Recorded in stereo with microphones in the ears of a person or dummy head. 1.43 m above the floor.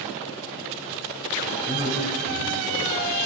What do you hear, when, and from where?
1.7 s a man speaking: 65° left (ahead or behind), 8 m